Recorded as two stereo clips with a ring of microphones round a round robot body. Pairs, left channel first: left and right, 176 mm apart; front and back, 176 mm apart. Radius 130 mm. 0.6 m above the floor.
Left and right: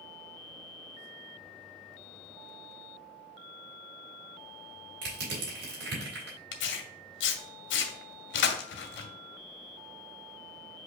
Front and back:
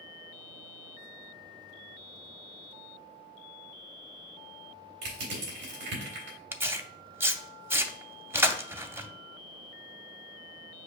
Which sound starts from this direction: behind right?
Crushing, at 5.0 s.